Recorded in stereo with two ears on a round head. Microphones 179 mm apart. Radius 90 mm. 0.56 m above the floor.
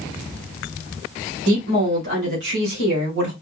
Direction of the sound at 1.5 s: 65° right (ahead or behind).